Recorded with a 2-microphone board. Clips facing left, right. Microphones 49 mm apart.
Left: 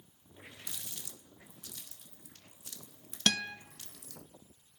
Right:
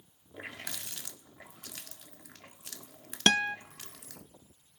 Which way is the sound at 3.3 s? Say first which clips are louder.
Right 6 dB; 40° right (ahead or behind).